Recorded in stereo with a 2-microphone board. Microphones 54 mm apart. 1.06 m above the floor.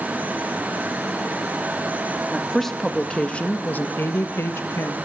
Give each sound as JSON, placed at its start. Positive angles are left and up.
{"t": 2.3, "sound": "a woman speaking", "side_deg": 5, "distance_m": 2.0}